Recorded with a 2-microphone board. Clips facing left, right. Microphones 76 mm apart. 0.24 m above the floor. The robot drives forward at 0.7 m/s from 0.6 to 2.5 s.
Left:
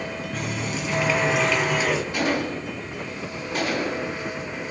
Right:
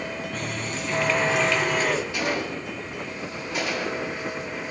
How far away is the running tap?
About 1.3 m.